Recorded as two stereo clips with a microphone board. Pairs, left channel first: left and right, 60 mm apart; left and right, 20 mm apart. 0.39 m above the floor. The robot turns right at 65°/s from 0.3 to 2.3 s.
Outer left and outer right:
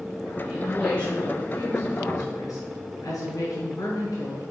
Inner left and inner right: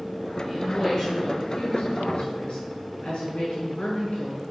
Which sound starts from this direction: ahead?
A woman speaking, at 0.4 s.